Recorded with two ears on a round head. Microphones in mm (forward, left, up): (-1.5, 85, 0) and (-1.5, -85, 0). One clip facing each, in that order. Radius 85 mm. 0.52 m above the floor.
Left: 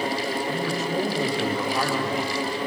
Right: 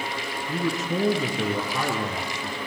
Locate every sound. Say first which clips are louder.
0.5 s a man speaking: left 1 dB; 80° right, 7.5 m; by 2.6 s 85° right, 10.5 m